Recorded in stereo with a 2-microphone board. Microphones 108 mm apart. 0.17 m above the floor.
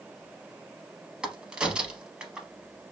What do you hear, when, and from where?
1.2 s a crack: 10° right (ahead or behind), 0.6 m